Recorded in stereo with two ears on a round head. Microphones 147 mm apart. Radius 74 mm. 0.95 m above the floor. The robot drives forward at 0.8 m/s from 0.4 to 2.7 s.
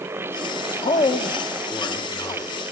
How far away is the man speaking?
About 1.5 m.